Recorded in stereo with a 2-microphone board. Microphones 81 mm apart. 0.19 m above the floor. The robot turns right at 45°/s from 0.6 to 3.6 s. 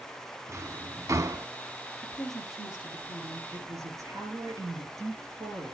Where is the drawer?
40° right (ahead or behind), 0.6 m.